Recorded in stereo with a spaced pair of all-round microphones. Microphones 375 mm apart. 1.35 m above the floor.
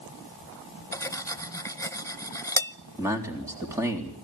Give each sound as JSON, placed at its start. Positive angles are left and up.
{"t": 0.9, "sound": "cutlery clinking", "side_deg": 10, "distance_m": 0.6}
{"t": 3.0, "sound": "a man speaking", "side_deg": -10, "distance_m": 3.5}